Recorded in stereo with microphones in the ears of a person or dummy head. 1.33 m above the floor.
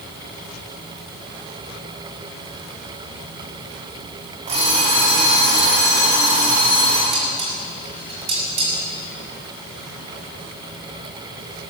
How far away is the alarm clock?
About 5 m.